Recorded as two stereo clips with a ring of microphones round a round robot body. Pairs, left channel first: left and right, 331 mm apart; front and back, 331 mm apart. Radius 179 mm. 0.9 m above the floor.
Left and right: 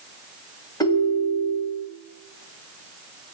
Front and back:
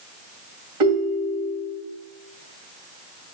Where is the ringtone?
170° left, 1.9 m.